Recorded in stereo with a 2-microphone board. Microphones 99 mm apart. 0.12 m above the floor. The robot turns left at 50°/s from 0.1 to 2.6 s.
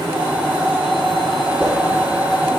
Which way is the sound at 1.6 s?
10° left (ahead or behind).